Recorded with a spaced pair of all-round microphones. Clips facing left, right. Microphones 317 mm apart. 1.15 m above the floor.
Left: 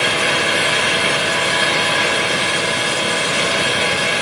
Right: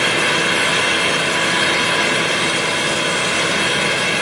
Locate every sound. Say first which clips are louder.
0.0 s a fan: right 1 dB; 60° right (ahead or behind), 1.7 m